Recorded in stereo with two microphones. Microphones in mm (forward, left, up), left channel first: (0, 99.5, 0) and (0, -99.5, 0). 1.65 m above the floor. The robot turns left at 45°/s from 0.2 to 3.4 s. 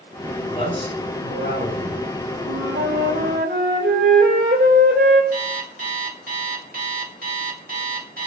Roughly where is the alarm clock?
Right.